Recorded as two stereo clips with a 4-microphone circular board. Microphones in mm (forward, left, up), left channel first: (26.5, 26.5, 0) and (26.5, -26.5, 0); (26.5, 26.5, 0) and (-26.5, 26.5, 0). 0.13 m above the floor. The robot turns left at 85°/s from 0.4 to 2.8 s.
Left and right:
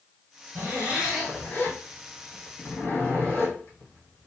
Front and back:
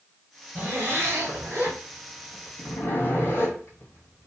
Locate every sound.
0.6 s a zipper: 130° right, 1.5 m; by 4.3 s 40° left, 1.5 m